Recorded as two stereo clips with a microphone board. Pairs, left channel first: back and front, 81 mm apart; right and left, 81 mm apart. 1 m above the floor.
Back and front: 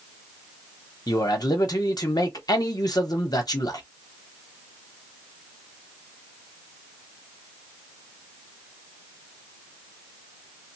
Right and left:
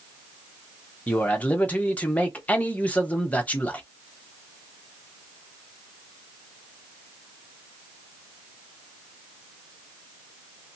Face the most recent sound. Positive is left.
turn(degrees=-160)